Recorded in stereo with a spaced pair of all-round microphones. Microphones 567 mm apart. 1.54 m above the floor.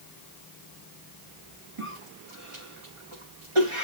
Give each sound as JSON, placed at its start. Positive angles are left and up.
{"t": 1.8, "sound": "a cough", "side_deg": -60, "distance_m": 2.5}